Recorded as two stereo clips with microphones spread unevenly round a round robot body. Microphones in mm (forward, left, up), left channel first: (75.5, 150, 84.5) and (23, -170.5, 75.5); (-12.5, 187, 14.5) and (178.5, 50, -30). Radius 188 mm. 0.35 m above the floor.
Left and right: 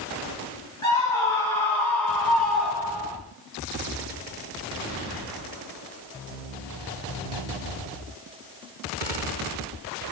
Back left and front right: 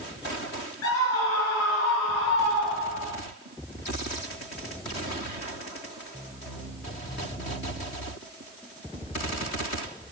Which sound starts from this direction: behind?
A scream, at 0.8 s.